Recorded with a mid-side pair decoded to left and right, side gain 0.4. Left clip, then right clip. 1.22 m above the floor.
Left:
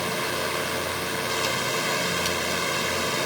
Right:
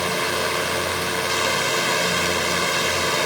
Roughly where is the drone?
Ahead right.